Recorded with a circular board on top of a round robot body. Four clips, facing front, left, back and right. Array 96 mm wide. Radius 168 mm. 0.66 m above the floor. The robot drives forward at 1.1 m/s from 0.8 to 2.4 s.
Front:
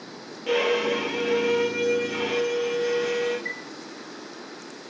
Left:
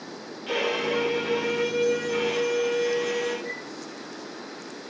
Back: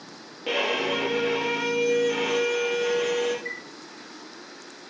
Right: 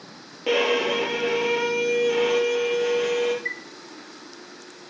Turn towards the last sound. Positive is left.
turn(degrees=-80)